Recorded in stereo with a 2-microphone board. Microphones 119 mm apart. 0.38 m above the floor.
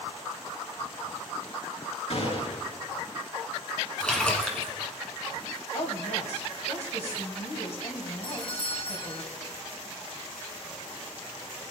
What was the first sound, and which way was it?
A gunshot, 60° left (ahead or behind).